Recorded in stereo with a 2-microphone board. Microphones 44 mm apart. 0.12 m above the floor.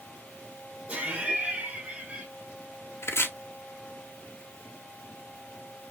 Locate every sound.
0.9 s laughter: 30° right (ahead or behind), 3 m
3.0 s chopping: 70° left (ahead or behind), 1.1 m